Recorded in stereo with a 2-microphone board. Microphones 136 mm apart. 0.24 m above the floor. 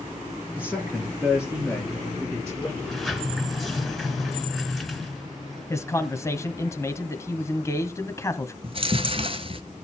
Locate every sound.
0.6 s a man speaking: 10° right (ahead or behind), 4 m; by 2.7 s 5° left (ahead or behind), 3.5 m
2.8 s a sliding door: centre (ahead or behind), 1.8 m
5.7 s a man speaking: 20° left (ahead or behind), 1.2 m
8.6 s chewing: 45° right (ahead or behind), 0.9 m